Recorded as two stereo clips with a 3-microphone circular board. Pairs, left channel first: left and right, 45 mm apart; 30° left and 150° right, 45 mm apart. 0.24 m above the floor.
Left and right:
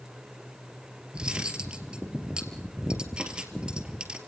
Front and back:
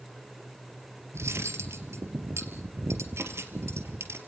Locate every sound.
1.1 s cutlery clinking: 160° right, 2.5 m